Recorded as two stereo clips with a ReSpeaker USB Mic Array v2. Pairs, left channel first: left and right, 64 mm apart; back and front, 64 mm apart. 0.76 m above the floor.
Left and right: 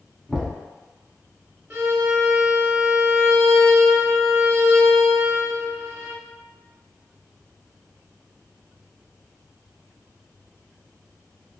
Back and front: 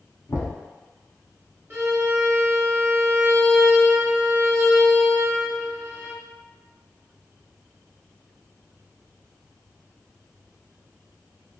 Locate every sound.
0.3 s knocking: 175° left, 1.0 m
1.7 s a violin: 40° right, 1.0 m